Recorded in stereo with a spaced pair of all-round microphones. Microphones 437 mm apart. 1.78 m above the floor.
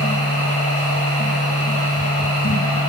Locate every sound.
0.0 s a machine running: 30° left (ahead or behind), 1.3 m